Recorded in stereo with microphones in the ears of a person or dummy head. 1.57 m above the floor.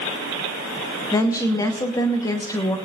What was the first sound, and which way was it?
A woman speaking, 25° left (ahead or behind).